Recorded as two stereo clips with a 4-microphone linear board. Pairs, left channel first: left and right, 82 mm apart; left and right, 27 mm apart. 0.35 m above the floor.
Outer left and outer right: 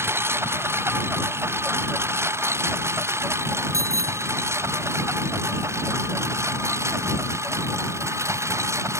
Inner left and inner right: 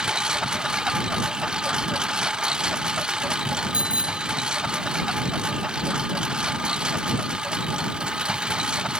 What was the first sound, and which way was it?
A lawn mower, 30° right (ahead or behind).